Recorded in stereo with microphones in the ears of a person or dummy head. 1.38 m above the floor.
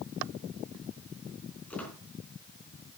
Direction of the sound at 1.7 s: 5° left (ahead or behind).